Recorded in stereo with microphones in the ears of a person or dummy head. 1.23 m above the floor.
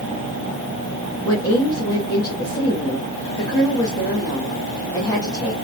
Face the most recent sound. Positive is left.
turn(degrees=25)  # may be behind; listen again after turning